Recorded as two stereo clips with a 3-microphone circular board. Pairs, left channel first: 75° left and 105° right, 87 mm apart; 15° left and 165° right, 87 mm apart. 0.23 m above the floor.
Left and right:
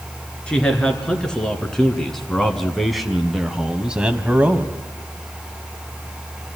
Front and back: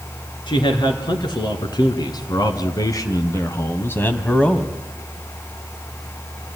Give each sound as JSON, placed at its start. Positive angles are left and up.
{"t": 0.5, "sound": "a man speaking", "azimuth_deg": -5, "distance_m": 3.0}